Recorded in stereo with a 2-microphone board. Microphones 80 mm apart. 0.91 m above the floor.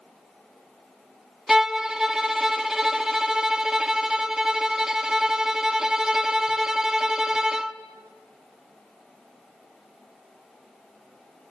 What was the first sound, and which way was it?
A violin, 5° right (ahead or behind).